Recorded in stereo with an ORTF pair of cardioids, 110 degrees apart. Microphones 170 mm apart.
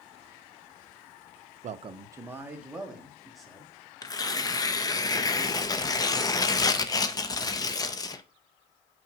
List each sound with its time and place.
1.6 s a man speaking: 50° right, 0.7 m; by 3.7 s straight ahead, 3.5 m
4.0 s tearing paper: 20° left, 0.8 m